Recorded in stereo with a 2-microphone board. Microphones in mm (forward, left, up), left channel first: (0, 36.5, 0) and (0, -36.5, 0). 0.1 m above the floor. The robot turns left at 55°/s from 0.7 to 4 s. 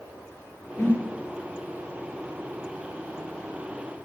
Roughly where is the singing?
No singing in this recording.